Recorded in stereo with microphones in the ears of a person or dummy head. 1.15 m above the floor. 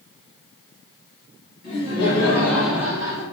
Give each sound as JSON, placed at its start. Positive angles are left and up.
{"t": 1.6, "sound": "laughter", "side_deg": 25, "distance_m": 1.1}